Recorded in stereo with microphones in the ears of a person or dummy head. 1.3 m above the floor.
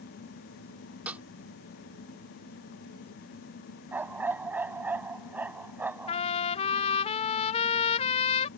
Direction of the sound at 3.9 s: 10° right (ahead or behind).